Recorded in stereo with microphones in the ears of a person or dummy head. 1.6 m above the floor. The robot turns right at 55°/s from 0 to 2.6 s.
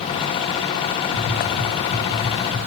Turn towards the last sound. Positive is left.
turn(degrees=-30)  # may be behind; listen again after turning